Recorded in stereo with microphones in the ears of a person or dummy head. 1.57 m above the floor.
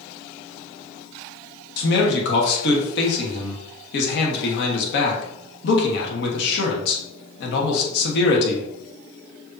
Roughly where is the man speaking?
Left.